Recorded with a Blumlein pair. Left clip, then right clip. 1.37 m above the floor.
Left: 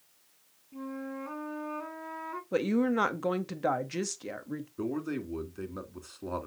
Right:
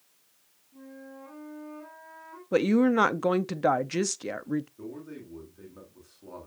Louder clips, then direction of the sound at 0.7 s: Left 7 dB; 65° left.